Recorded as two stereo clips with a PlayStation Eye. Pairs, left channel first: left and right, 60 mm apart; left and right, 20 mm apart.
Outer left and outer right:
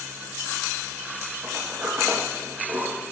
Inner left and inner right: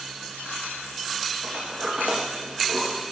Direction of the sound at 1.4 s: 50° right (ahead or behind).